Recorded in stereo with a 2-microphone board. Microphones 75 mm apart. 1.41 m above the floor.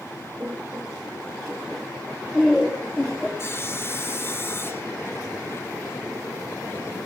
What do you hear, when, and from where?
0.4 s laughter: 35° right (ahead or behind), 3.5 m; by 3.3 s 10° left (ahead or behind), 4.5 m
3.4 s sawing: 35° left (ahead or behind), 1.8 m